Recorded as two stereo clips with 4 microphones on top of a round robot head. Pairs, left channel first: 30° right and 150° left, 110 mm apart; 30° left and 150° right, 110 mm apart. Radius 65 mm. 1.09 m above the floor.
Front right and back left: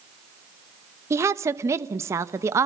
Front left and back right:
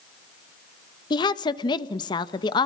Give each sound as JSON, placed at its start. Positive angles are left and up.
{"t": 1.1, "sound": "a woman speaking", "azimuth_deg": 85, "distance_m": 0.9}